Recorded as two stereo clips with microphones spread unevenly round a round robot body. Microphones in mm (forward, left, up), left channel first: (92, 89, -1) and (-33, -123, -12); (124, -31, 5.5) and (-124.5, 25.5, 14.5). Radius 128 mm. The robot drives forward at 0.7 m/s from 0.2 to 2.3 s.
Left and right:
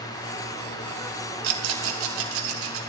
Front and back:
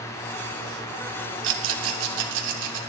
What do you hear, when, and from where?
1.4 s a rattle: 150° right, 0.8 m; by 2.8 s 165° right, 1.3 m